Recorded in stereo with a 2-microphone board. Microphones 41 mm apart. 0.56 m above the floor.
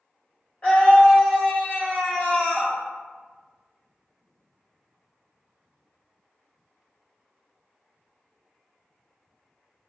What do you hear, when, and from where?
0.6 s a scream: 30° left (ahead or behind), 1.5 m